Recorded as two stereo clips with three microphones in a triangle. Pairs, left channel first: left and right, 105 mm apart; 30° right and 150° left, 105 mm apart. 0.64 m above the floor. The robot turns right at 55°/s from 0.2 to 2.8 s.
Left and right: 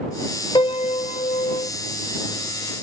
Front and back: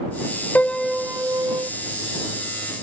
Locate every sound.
0.6 s a piano: 45° left; by 1.7 s 105° left